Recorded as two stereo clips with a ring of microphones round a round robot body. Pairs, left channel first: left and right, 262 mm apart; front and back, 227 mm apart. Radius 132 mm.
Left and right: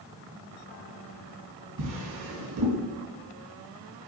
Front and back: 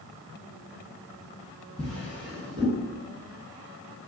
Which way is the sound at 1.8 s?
100° right.